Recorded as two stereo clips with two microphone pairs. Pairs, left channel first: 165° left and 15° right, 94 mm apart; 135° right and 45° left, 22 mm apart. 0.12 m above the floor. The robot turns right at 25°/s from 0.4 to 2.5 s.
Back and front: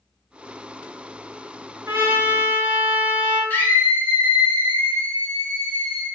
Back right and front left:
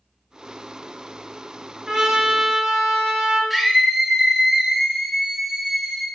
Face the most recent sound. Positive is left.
turn(degrees=120)